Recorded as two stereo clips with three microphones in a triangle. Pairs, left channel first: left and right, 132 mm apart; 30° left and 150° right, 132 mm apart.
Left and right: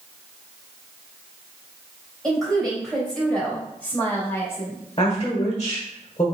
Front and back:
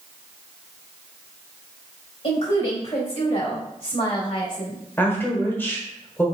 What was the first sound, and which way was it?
A woman speaking, straight ahead.